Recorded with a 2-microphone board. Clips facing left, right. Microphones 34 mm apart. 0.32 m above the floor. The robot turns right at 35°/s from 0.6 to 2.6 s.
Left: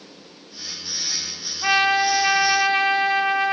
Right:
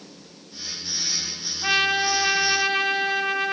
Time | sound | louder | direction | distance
1.6 | a trumpet | left 3 dB | 95° left | 1.7 m